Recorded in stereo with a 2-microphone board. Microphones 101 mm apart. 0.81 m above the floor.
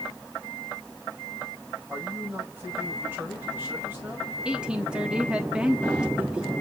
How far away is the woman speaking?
About 1.3 m.